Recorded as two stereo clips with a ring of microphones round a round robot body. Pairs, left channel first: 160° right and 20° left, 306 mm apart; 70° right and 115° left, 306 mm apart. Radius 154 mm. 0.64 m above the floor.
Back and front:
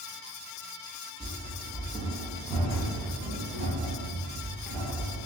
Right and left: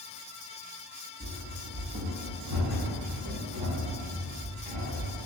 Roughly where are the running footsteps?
Left.